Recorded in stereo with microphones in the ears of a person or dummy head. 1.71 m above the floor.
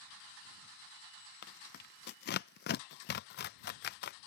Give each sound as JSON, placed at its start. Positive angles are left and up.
{"t": 1.4, "sound": "tearing paper", "side_deg": 55}